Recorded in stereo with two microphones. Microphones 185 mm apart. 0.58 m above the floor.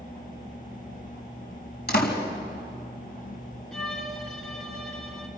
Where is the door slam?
60° left (ahead or behind), 3.5 m.